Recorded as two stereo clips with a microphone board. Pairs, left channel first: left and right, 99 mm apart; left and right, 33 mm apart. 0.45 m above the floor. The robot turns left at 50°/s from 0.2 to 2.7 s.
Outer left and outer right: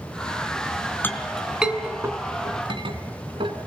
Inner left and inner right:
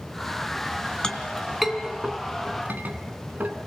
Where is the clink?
20° left (ahead or behind), 3 m; by 3.5 s 60° right (ahead or behind), 3 m.